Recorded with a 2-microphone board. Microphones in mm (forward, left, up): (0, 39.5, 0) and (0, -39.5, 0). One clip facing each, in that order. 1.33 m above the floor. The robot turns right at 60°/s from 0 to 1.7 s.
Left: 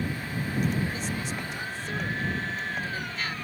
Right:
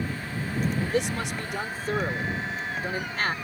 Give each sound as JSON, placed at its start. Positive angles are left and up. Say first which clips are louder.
{"t": 0.8, "sound": "a man speaking", "louder": "right 5 dB", "azimuth_deg": -105}